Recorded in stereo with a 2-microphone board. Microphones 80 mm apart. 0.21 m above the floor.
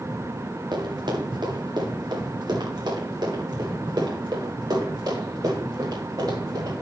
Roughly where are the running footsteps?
Right.